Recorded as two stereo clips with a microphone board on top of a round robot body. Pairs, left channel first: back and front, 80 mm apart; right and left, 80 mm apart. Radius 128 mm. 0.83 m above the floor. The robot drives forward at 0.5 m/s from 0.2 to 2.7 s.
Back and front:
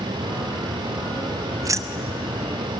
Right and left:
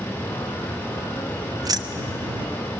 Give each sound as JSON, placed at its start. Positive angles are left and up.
{"t": 1.6, "sound": "keys jangling", "azimuth_deg": 45, "distance_m": 0.7}